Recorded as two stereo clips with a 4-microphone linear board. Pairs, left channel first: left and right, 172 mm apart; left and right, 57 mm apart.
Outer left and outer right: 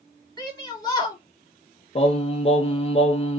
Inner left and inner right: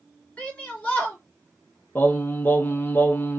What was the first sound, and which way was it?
A shout, 25° left (ahead or behind).